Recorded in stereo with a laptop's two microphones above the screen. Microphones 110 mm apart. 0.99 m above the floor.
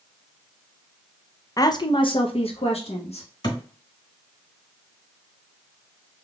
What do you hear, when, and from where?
1.6 s a woman speaking: 30° left (ahead or behind), 0.5 m; by 3.3 s 70° left (ahead or behind), 1.1 m
3.4 s a thud: 40° left (ahead or behind), 1.1 m